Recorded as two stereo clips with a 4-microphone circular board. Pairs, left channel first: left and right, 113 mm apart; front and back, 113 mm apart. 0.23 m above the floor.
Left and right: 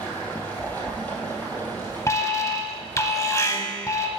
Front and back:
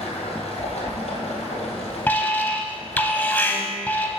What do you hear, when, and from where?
0.0 s running water: 15° left, 2.5 m
2.1 s an alarm: 60° left, 0.8 m